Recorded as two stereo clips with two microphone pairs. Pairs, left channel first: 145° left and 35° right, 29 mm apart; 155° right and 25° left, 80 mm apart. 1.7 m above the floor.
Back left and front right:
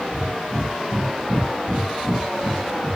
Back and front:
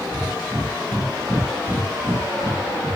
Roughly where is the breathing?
Ahead right.